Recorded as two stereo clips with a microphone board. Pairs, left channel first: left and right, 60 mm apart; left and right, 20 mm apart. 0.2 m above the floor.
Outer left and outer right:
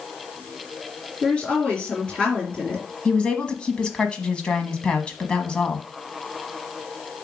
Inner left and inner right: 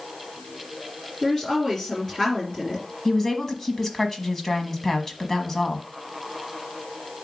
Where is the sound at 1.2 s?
15° left (ahead or behind), 3.5 m.